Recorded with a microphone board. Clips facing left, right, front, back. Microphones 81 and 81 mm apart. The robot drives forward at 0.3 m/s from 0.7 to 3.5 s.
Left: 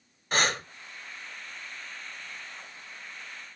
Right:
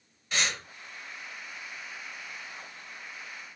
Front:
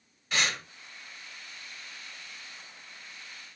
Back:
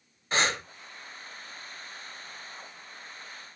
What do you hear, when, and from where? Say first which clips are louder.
0.3 s breathing: left 5 dB, back 3 dB; 130° left, 1.2 m